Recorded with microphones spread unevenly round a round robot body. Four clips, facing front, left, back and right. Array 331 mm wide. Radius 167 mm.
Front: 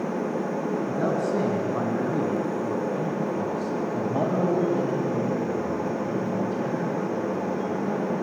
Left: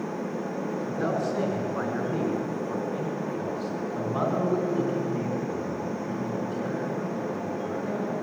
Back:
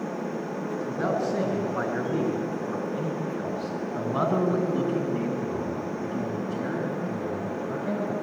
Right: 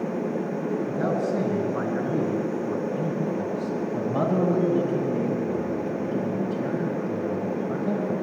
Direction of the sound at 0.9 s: 35° right.